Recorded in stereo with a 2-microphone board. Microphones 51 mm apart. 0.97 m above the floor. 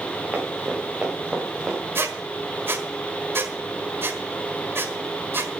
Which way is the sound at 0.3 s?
20° right (ahead or behind).